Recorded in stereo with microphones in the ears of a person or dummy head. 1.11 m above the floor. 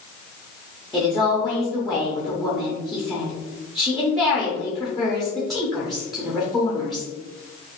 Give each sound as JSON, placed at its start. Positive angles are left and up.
{"t": 0.9, "sound": "a woman speaking", "side_deg": 0, "distance_m": 0.7}